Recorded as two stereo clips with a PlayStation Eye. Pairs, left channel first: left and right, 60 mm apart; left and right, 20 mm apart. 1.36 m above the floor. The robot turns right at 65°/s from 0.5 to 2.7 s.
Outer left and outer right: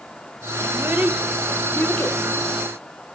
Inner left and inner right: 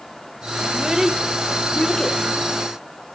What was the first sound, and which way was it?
A child speaking, 50° right (ahead or behind).